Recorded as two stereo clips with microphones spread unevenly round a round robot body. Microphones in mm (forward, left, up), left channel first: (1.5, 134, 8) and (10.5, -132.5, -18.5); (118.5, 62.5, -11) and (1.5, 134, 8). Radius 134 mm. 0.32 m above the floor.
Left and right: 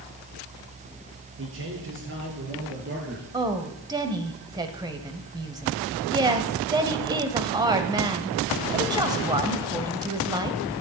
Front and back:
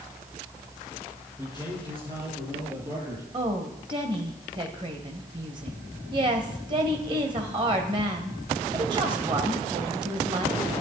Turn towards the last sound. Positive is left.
turn(degrees=-150)